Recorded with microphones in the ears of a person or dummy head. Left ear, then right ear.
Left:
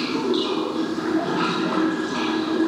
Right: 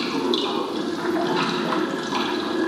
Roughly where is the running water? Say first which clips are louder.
Even; right.